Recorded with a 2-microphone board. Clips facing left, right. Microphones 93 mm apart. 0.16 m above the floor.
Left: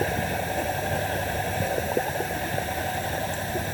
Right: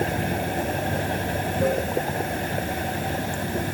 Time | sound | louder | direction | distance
0.0 | running water | right 1 dB | 65° right (ahead or behind) | 0.7 m